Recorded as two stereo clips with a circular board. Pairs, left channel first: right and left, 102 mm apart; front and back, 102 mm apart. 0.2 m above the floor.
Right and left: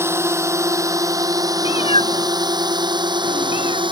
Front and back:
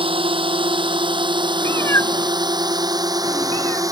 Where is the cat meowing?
65° right.